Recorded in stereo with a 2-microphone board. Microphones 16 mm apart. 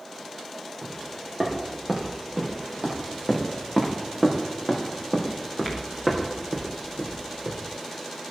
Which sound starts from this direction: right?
Footsteps, at 0.8 s.